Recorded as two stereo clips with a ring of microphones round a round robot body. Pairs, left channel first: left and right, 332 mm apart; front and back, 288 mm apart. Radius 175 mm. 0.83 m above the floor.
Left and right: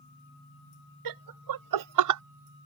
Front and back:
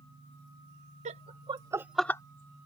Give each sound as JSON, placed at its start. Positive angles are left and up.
{"t": 1.1, "sound": "laughter", "azimuth_deg": -110}